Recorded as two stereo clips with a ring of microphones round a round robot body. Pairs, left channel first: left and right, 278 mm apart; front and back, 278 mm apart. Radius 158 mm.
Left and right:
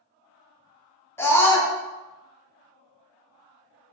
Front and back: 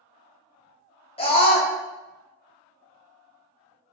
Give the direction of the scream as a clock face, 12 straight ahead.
11 o'clock.